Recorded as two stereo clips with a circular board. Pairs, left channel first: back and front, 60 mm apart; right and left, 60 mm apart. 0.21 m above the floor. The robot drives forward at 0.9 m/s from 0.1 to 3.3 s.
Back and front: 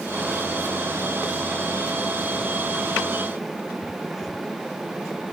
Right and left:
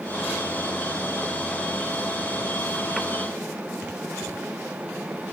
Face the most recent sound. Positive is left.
No sound to turn to.